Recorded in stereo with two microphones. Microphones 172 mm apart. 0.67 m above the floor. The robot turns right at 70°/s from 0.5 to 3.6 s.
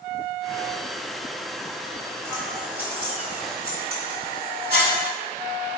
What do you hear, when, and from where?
2.2 s scissors: 15° right (ahead or behind), 1.6 m; by 5.0 s 65° right (ahead or behind), 1.6 m